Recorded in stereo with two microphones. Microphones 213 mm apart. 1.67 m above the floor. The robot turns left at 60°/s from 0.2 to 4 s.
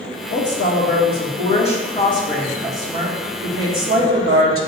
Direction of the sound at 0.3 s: 130° left.